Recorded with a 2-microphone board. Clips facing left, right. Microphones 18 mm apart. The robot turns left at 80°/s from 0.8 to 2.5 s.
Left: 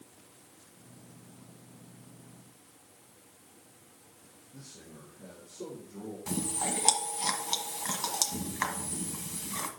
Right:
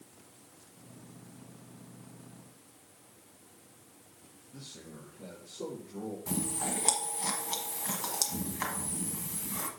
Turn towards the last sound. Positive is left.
turn(degrees=35)  # may be behind; listen again after turning